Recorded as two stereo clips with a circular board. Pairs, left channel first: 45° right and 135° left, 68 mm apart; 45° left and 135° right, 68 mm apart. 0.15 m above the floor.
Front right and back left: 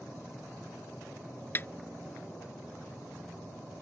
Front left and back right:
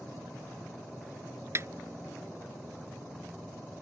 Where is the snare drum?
95° right.